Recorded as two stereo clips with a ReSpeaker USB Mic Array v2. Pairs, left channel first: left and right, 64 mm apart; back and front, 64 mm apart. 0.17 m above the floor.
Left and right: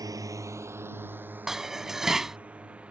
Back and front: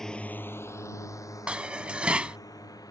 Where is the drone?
100° right; by 2.9 s 165° right.